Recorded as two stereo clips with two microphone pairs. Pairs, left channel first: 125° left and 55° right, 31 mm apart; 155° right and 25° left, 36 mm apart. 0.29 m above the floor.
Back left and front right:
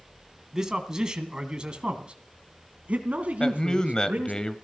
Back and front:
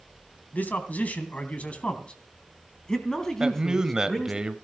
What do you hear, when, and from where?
0.5 s a man speaking: 125° right, 2.5 m; by 4.4 s 70° right, 3 m
3.4 s a man speaking: 85° left, 1.2 m